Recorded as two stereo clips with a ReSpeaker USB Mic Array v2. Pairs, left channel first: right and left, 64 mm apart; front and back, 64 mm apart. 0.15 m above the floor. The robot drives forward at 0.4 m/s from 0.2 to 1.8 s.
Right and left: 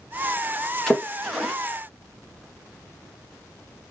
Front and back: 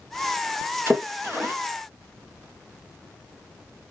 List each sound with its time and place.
0.9 s a splash: 175° right, 1.1 m